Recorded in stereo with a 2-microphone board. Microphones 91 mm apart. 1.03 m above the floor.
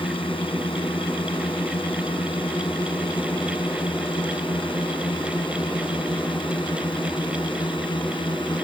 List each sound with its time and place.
0.0 s a drone: 75° left (ahead or behind); by 8.7 s 65° left (ahead or behind)